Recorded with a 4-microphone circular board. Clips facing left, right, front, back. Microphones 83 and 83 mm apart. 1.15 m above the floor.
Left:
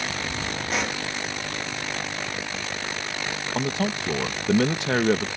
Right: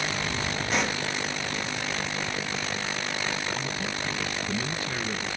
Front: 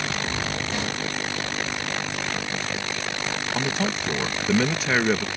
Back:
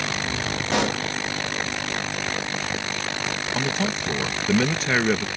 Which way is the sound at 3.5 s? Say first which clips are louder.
Left 6 dB, back 1 dB; 90° left.